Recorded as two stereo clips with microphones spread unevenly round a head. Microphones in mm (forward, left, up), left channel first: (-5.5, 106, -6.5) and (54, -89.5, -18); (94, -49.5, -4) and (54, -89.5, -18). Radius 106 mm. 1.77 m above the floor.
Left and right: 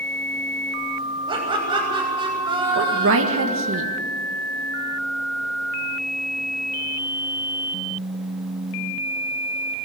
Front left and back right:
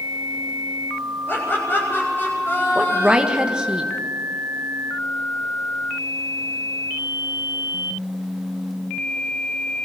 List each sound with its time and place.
1.3 s laughter: straight ahead, 7 m
2.8 s a woman speaking: 55° right, 1.8 m